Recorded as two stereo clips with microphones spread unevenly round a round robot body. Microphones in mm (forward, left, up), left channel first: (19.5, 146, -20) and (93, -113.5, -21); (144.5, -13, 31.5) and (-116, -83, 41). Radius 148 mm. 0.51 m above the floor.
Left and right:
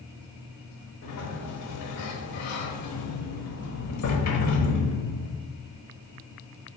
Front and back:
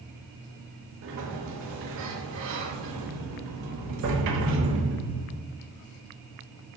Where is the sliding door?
145° left, 1.0 m.